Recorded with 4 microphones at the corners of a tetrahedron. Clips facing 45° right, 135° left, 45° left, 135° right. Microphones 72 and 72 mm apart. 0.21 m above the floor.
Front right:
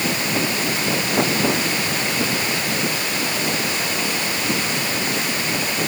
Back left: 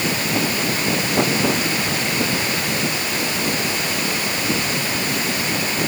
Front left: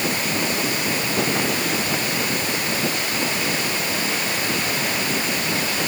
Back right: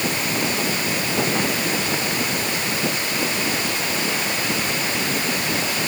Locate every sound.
Only background noise.